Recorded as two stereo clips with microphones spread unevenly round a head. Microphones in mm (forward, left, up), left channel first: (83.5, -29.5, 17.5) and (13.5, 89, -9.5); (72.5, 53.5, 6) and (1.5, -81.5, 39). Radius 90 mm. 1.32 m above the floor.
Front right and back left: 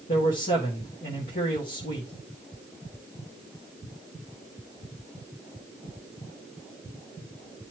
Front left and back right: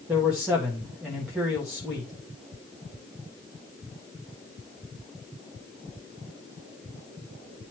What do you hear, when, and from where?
0.1 s a man speaking: 30° right, 2 m